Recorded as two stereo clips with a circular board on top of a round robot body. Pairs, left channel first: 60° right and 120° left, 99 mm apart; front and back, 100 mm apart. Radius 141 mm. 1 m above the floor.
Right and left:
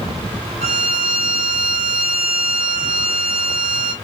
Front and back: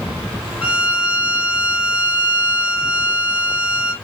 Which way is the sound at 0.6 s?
105° left.